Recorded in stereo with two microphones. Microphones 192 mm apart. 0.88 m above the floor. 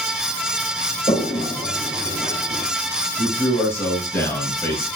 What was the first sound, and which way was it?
A toilet flushing, 25° left (ahead or behind).